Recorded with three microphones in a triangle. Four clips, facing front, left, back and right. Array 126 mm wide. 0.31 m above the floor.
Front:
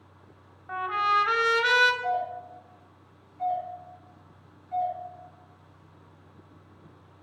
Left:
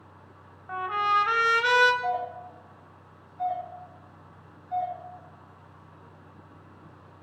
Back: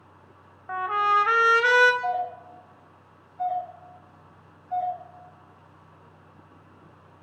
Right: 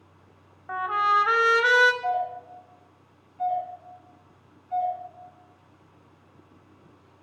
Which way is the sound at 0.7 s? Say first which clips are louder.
Right 2 dB, back 3 dB; 145° right.